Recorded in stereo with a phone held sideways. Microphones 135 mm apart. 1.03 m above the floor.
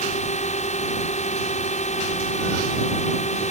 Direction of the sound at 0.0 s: 60° left (ahead or behind).